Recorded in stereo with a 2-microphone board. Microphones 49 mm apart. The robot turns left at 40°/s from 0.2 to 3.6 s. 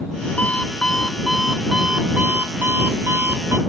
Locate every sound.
0.4 s an alarm clock: 35° left; by 3.6 s 90° right